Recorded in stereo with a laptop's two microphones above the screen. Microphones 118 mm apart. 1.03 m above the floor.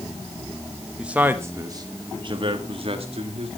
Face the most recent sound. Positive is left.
turn(degrees=-60)  # may be behind; listen again after turning